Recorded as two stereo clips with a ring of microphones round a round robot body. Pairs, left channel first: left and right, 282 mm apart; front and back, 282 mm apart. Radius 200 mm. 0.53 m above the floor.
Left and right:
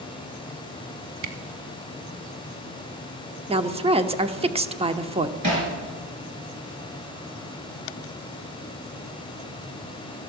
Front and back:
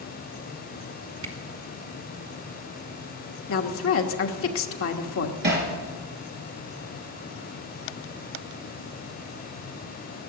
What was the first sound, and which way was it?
A camera shutter, 125° right.